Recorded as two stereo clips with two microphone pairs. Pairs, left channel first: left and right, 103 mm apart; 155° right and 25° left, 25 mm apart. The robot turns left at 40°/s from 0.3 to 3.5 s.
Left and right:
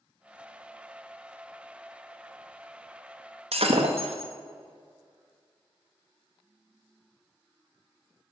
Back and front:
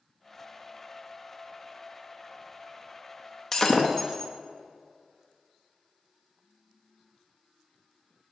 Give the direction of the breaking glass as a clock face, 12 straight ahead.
3 o'clock.